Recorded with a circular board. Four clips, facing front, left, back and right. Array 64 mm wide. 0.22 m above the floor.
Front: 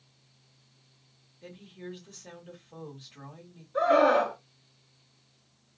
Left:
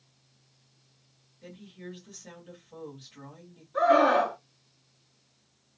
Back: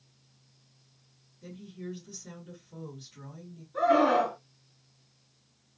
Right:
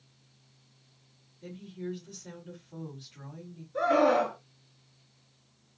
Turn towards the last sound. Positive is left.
turn(degrees=80)